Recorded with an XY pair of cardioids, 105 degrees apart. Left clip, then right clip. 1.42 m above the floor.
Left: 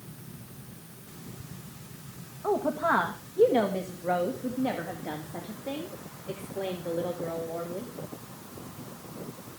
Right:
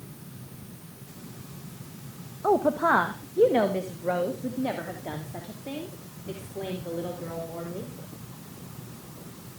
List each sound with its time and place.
2.4 s a woman speaking: 40° right, 1.4 m; by 7.9 s straight ahead, 5 m